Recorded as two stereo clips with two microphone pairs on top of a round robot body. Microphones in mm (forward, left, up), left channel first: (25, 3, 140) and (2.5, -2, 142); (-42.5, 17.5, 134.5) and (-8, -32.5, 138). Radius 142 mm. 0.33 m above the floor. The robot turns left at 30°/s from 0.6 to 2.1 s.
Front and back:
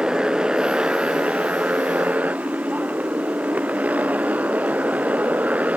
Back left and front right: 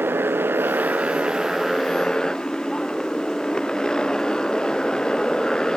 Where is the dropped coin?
I don't hear a dropped coin.